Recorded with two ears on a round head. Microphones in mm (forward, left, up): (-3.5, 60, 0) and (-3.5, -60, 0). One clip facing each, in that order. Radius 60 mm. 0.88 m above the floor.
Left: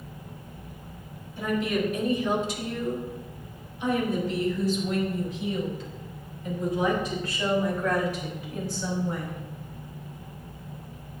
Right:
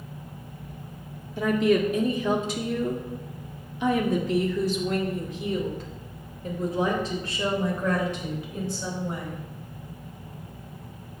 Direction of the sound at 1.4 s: 60° right (ahead or behind).